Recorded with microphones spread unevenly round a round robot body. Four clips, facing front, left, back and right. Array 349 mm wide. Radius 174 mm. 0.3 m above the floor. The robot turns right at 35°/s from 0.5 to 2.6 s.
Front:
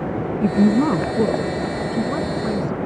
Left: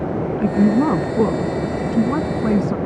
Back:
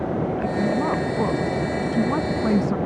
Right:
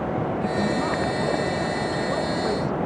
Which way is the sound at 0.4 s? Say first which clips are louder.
Left 11 dB, front 9 dB; 45° left.